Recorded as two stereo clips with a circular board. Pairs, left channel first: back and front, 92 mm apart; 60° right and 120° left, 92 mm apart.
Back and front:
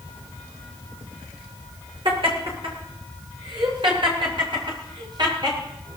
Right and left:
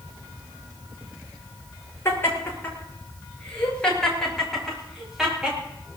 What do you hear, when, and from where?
2.0 s laughter: straight ahead, 8.5 m; by 5.6 s 40° left, 8 m